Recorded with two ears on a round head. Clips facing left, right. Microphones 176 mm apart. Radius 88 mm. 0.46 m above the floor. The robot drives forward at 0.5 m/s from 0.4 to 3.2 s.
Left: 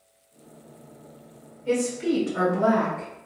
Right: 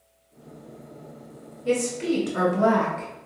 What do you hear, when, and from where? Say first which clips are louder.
1.6 s a woman speaking: even; 55° right (ahead or behind), 1.9 m; by 3.1 s 45° right (ahead or behind), 2 m